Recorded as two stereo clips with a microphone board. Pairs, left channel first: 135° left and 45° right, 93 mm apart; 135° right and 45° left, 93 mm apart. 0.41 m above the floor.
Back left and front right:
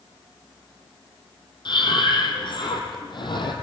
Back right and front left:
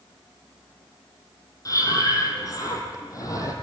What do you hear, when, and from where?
1.6 s breathing: 170° left, 3.5 m